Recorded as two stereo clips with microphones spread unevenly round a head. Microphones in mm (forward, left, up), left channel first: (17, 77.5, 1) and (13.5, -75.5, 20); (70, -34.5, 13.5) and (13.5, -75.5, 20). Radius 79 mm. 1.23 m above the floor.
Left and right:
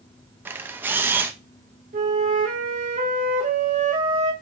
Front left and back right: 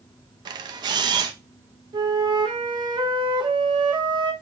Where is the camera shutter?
165° right, 0.6 m.